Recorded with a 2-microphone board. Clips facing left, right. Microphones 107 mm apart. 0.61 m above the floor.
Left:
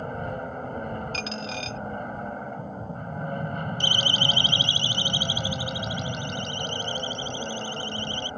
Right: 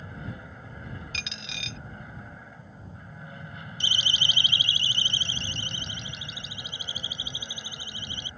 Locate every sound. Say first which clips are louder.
0.0 s an aircraft: left 10 dB; 60° left (ahead or behind)
1.1 s a dropped coin: left 10 dB; 40° left (ahead or behind)
3.8 s a siren: left 3 dB; 60° left (ahead or behind); by 8.3 s 15° right (ahead or behind)